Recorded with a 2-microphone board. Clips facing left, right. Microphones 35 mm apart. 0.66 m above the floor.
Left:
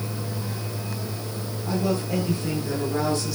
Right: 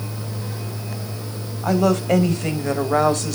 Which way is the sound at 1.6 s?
70° right (ahead or behind).